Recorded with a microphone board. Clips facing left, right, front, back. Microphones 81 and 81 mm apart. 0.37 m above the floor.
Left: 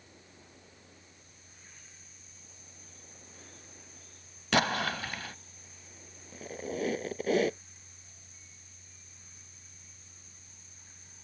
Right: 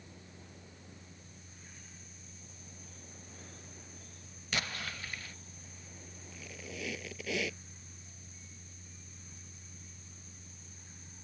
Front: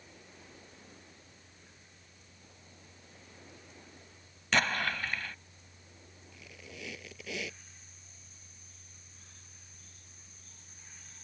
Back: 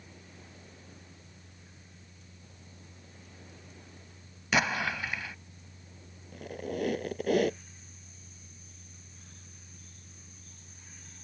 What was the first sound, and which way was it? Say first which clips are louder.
An explosion: left 11 dB, back 1 dB; 100° left.